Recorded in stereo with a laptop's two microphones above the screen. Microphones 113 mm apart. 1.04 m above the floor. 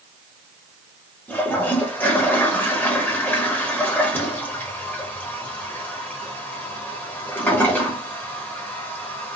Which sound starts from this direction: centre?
A toilet flushing, at 1.3 s.